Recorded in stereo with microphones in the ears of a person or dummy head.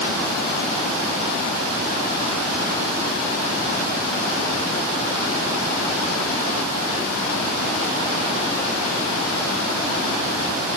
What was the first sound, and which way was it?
Only background noise.